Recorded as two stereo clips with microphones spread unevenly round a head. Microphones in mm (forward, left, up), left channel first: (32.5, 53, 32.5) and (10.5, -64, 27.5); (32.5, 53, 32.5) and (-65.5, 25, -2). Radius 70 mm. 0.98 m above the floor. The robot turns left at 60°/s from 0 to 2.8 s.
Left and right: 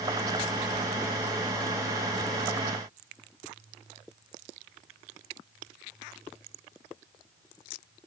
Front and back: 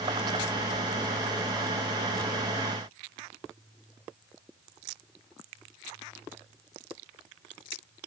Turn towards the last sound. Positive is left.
No sound to turn to.